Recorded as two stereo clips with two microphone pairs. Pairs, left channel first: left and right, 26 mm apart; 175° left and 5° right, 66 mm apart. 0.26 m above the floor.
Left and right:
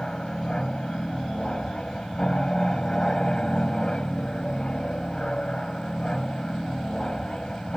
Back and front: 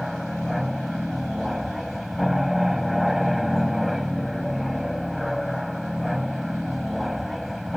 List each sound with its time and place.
0.0 s an aircraft: 85° left